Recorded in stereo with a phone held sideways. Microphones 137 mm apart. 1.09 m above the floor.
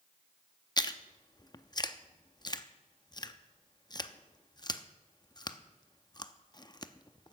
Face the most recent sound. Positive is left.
turn(degrees=30)  # may be behind; listen again after turning